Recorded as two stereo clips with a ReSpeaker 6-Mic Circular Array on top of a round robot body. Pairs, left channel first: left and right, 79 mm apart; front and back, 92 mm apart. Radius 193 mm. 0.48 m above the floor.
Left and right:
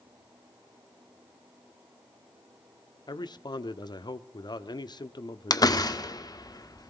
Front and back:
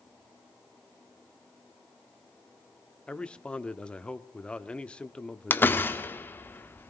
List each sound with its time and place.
3.1 s a man speaking: 75° left, 1.2 m
5.5 s a door slam: 65° left, 1.4 m